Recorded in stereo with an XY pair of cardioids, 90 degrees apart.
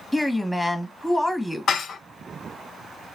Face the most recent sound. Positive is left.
turn(degrees=65)